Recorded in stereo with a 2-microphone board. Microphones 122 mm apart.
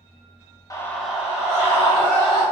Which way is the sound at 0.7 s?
30° left (ahead or behind).